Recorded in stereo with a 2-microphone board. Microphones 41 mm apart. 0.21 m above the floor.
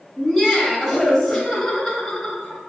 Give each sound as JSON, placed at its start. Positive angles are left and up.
{"t": 0.2, "sound": "laughter", "side_deg": 0, "distance_m": 1.0}